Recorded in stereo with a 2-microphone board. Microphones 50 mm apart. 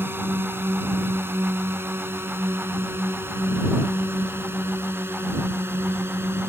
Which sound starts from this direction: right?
A drone, at 0.0 s.